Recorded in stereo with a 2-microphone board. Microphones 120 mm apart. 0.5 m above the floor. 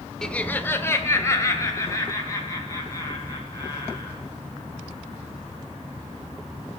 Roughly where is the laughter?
Centre.